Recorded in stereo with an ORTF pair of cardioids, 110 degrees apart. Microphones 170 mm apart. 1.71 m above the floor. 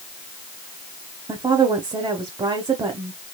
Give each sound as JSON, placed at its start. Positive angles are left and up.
{"t": 1.3, "sound": "a woman speaking", "azimuth_deg": -25, "distance_m": 1.3}